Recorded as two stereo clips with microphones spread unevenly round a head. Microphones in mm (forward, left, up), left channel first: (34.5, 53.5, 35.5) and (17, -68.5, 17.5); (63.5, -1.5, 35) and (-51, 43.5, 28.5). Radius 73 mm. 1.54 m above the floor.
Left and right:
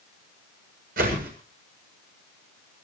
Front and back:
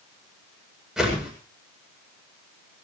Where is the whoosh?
115° right, 7.5 m.